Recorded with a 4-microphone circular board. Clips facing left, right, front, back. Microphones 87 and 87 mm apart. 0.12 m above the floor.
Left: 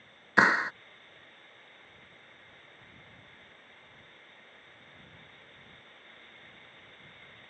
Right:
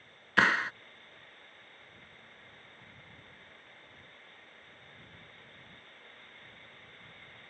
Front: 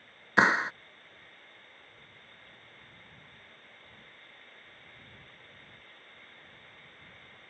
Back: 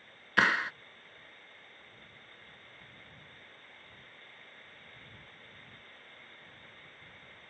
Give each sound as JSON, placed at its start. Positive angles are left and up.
{"t": 0.4, "sound": "a clap", "azimuth_deg": 40}